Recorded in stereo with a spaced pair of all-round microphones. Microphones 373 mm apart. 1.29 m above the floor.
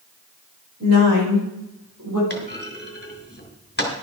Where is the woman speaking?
40° right (ahead or behind), 4.5 m; by 2.2 s 55° right (ahead or behind), 5.5 m.